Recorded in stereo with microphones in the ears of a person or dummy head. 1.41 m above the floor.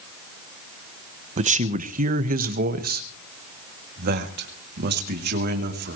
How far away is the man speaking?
About 0.9 m.